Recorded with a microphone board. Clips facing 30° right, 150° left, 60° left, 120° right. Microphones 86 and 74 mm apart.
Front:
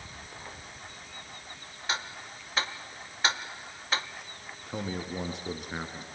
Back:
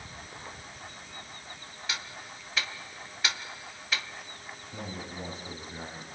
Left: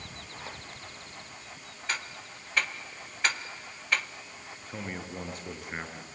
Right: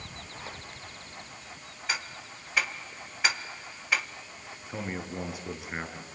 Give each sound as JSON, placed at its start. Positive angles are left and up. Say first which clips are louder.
{"t": 1.9, "sound": "ticking", "louder": "front 5 dB, right 1 dB", "azimuth_deg": -40, "distance_m": 1.0}
{"t": 4.7, "sound": "a man speaking", "louder": "front 6 dB, right 3 dB", "azimuth_deg": -35, "distance_m": 4.5}